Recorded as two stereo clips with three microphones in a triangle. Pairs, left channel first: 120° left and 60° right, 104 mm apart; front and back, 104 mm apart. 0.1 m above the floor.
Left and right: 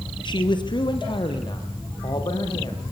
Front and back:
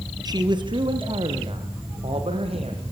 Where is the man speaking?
145° left, 2.5 m; by 2.8 s 165° left, 6 m.